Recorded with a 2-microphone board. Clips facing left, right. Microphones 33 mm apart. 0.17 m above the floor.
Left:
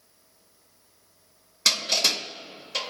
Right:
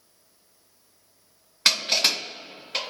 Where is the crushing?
35° right (ahead or behind), 2.0 m.